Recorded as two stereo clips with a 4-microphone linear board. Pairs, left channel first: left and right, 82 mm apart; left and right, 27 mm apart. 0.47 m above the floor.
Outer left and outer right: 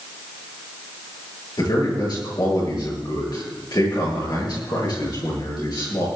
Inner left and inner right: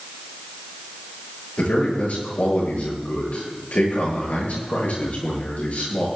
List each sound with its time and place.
1.6 s a man speaking: 60° left (ahead or behind), 9.5 m